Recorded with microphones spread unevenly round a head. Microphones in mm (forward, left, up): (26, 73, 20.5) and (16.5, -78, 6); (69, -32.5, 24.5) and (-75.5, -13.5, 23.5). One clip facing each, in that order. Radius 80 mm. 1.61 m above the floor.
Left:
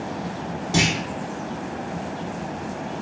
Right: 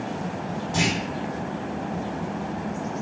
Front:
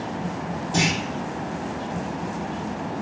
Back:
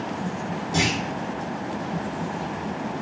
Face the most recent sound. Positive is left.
turn(degrees=80)